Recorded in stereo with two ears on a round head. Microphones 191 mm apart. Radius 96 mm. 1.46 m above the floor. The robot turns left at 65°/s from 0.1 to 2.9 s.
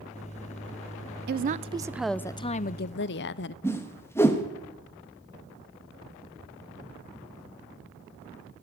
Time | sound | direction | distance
1.3 | a woman speaking | 130° right | 0.5 m
3.6 | a whoosh | 10° left (ahead or behind) | 1.4 m